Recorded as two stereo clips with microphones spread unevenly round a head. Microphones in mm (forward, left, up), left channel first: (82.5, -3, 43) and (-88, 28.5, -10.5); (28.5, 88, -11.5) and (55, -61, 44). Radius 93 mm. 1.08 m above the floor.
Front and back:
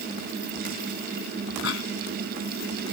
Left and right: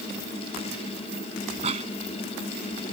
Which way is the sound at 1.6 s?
35° right.